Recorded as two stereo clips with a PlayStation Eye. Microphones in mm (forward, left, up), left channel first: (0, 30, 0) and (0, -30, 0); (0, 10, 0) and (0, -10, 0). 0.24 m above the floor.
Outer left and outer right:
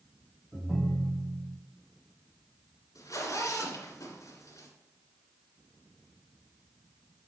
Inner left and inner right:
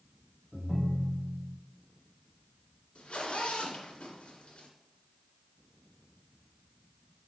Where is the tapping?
No tapping in this recording.